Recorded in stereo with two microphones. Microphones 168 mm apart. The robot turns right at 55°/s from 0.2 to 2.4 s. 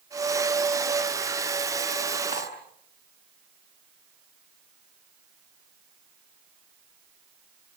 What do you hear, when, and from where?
2.3 s cutlery clinking: 45° right (ahead or behind), 7.5 m; by 2.5 s 50° right (ahead or behind), 7.5 m